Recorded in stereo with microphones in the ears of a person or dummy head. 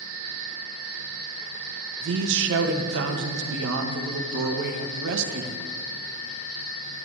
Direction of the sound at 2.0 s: 70° right (ahead or behind).